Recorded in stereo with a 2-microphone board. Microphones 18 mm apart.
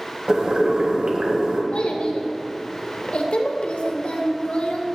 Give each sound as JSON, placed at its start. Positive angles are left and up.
{"t": 0.3, "sound": "boiling", "side_deg": -60, "distance_m": 1.5}
{"t": 1.7, "sound": "a child speaking", "side_deg": 85, "distance_m": 1.3}